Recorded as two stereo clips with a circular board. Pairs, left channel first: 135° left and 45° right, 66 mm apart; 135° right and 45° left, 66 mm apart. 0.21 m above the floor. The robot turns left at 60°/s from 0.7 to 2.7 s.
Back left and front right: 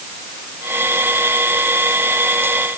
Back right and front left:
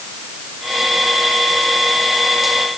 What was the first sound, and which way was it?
Only background noise.